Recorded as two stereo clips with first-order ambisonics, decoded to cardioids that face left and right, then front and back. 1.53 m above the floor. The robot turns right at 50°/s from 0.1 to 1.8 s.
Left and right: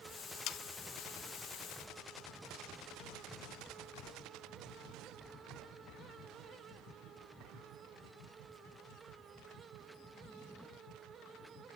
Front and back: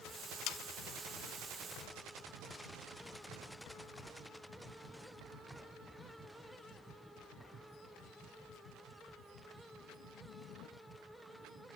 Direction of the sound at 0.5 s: 45° left.